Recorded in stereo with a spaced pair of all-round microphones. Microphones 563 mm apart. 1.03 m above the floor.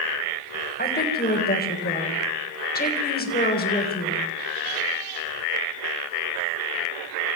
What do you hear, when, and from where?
0.8 s a woman speaking: 15° left (ahead or behind), 4 m